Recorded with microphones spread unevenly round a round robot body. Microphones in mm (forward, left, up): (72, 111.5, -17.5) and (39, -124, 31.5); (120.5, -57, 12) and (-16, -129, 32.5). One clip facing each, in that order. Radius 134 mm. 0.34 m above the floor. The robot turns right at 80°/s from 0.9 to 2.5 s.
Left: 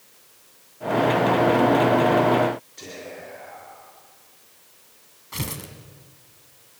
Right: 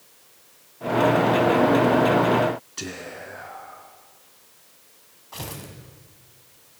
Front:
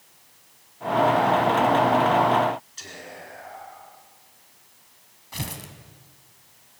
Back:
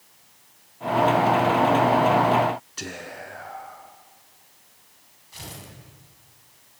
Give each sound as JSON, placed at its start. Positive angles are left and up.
{"t": 2.8, "sound": "whispering", "azimuth_deg": -135, "distance_m": 3.5}
{"t": 5.3, "sound": "tearing paper", "azimuth_deg": 30, "distance_m": 2.5}